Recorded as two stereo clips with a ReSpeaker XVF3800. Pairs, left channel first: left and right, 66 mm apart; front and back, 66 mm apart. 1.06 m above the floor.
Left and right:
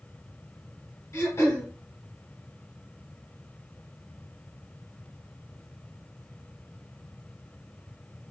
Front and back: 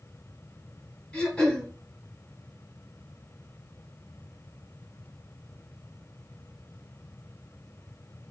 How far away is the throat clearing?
About 1.3 m.